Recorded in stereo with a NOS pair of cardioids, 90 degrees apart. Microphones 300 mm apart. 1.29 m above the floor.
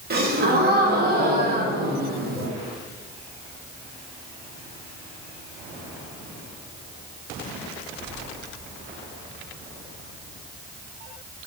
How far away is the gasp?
About 1.5 m.